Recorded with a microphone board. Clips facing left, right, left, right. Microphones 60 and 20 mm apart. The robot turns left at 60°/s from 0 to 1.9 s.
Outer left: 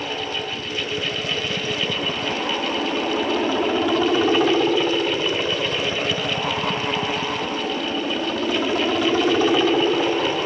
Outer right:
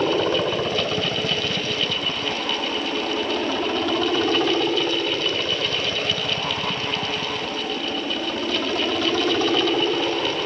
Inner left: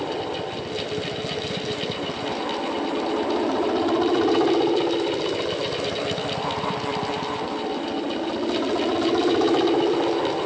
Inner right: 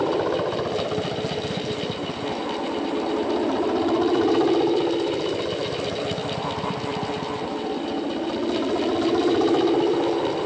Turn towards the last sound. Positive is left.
turn(degrees=170)